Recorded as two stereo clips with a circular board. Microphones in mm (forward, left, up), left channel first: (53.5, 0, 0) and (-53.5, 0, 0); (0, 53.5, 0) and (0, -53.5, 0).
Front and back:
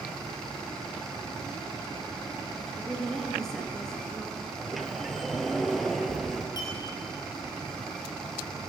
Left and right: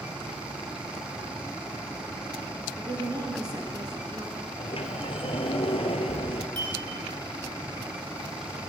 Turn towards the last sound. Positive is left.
turn(degrees=-50)